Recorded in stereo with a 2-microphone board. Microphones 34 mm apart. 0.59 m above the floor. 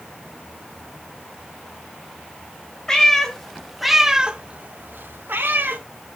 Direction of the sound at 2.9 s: 20° left (ahead or behind).